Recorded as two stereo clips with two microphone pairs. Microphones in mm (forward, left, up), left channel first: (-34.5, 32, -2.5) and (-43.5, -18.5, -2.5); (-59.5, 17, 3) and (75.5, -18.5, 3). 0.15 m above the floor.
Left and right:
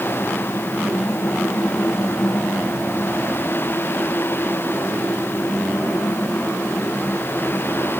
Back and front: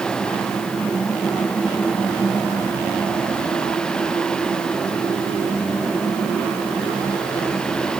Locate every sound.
Only background noise.